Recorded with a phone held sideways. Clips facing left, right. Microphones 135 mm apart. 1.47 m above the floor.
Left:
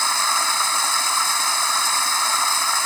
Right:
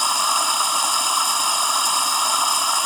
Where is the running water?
15° right (ahead or behind).